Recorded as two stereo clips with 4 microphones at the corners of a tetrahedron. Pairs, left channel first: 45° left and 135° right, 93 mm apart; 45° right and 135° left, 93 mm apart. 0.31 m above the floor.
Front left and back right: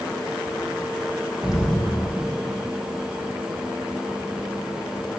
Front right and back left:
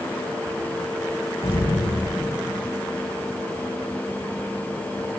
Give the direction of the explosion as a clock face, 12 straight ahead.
2 o'clock.